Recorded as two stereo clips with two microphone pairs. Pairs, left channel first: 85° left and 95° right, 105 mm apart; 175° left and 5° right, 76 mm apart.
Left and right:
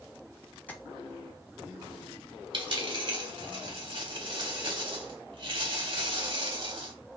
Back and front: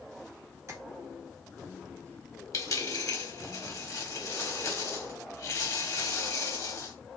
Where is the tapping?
15° left, 0.8 m.